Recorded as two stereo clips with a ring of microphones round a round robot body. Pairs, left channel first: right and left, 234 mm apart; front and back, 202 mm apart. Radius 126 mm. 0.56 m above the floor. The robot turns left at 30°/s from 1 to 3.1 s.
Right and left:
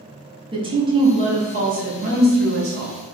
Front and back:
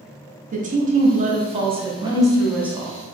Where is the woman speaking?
150° left, 0.8 m; by 2.9 s 90° left, 0.8 m.